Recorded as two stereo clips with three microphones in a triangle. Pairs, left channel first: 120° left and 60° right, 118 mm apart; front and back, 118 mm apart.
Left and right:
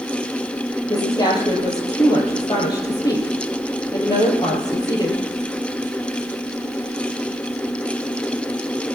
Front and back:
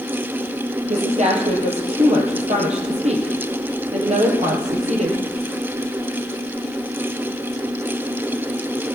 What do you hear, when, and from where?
0.9 s a woman speaking: 175° left, 4 m